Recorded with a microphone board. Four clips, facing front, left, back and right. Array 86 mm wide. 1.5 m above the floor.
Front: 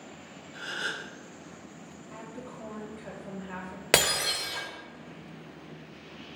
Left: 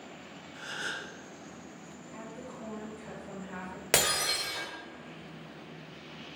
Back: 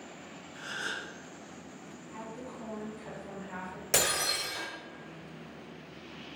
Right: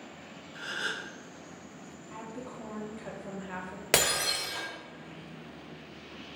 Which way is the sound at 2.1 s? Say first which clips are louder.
Right 2 dB, even; 60° right.